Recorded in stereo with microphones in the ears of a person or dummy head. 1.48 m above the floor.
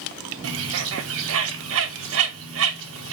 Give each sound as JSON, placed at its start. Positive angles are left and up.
{"t": 0.4, "sound": "a bird", "side_deg": -75, "distance_m": 0.6}